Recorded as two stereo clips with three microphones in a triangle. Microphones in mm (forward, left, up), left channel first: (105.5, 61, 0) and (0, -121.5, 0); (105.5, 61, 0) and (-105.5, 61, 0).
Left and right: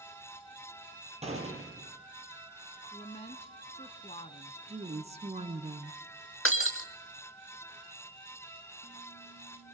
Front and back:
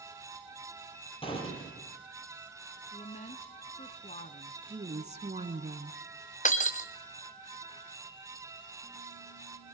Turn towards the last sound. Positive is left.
turn(degrees=55)